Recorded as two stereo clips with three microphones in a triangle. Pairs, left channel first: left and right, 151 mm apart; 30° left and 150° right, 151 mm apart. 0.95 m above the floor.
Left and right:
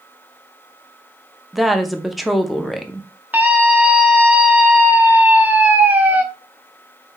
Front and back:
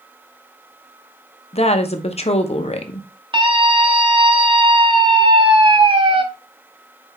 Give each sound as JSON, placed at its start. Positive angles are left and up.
{"t": 1.5, "sound": "a woman speaking", "azimuth_deg": 0, "distance_m": 0.6}
{"t": 3.3, "sound": "a scream", "azimuth_deg": -160, "distance_m": 0.8}